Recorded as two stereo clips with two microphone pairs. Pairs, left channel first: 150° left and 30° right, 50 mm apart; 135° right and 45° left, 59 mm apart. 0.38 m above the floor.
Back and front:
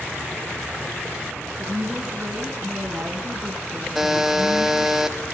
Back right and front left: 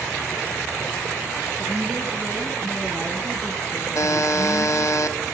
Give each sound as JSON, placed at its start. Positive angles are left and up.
{"t": 1.6, "sound": "a woman speaking", "azimuth_deg": 0, "distance_m": 3.0}
{"t": 4.0, "sound": "a buzzer", "azimuth_deg": -115, "distance_m": 1.7}